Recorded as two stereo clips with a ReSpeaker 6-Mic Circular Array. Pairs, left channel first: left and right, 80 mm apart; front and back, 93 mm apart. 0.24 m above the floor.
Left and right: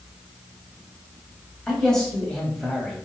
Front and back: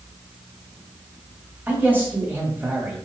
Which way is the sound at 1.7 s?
160° left.